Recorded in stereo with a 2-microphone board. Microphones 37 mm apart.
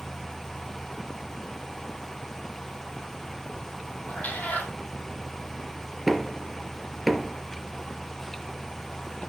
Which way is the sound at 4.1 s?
50° left (ahead or behind).